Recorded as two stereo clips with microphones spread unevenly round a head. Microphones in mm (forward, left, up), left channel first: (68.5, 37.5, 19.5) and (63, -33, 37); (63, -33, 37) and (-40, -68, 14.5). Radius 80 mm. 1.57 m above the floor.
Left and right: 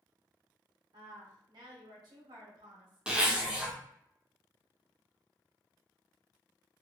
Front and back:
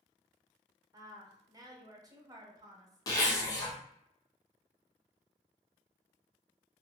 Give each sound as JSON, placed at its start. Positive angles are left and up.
{"t": 0.9, "sound": "a woman speaking", "azimuth_deg": -100, "distance_m": 0.9}
{"t": 3.1, "sound": "a zipper", "azimuth_deg": -25, "distance_m": 0.9}